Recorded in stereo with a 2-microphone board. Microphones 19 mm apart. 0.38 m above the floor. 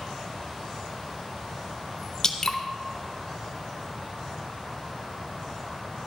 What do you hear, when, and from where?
2.2 s dripping: 20° left (ahead or behind), 0.9 m